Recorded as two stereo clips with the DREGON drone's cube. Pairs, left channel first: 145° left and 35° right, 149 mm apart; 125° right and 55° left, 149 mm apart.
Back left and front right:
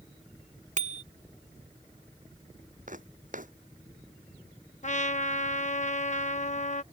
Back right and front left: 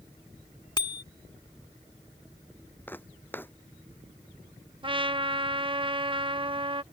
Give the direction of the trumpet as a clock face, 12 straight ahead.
8 o'clock.